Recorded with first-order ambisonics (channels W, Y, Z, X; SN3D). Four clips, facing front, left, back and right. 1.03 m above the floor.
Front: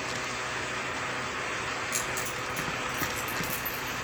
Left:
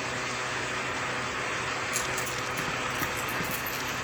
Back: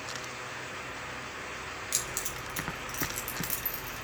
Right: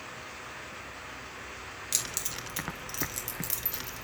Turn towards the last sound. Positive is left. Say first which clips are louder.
# left 5 dB, front 4 dB
turn(degrees=-110)